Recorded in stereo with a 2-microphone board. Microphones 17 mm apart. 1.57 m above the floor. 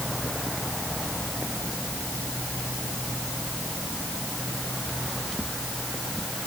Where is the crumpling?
No crumpling in this recording.